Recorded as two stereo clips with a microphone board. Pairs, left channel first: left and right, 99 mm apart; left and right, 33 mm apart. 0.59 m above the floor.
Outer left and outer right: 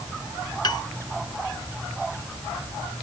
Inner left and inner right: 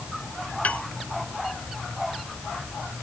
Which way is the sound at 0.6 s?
50° left (ahead or behind).